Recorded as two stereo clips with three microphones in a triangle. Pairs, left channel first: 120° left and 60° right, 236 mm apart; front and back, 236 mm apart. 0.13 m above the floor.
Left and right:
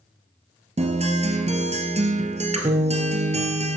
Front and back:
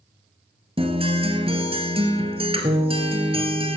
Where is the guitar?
115° right, 1.6 m.